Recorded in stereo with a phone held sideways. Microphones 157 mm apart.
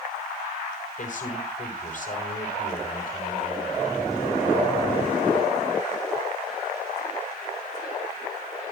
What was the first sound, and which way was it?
A man speaking, 55° left (ahead or behind).